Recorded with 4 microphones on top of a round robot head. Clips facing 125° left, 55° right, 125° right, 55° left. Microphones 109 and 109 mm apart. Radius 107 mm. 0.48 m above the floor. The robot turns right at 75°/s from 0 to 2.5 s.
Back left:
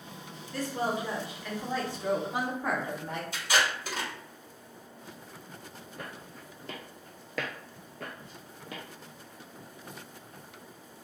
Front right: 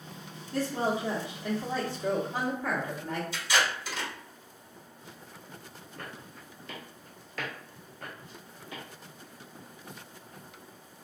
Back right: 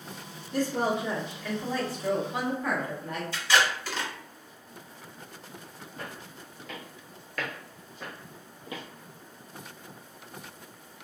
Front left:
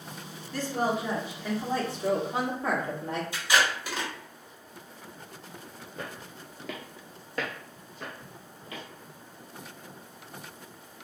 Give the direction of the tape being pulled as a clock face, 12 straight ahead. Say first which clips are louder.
Back left 1 dB, back right 2 dB; 8 o'clock.